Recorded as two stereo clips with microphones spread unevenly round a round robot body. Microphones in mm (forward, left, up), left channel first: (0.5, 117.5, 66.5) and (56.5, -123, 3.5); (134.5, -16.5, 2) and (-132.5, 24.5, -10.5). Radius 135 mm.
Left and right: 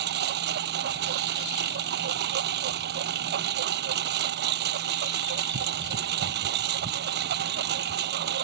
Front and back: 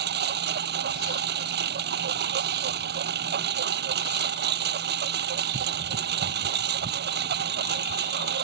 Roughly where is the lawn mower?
Behind right.